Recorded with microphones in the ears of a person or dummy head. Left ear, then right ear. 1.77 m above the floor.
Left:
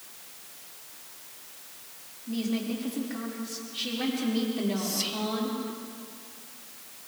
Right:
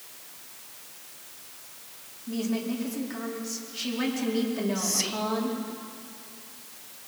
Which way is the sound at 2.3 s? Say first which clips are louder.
Right 1 dB; 75° right (ahead or behind).